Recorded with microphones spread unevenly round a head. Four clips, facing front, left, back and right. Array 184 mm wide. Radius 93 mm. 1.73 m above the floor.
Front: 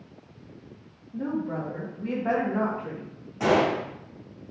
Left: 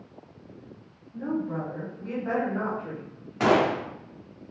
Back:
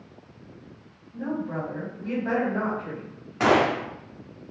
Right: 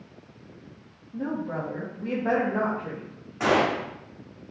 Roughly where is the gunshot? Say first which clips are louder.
Left 1 dB, back 2 dB; behind left.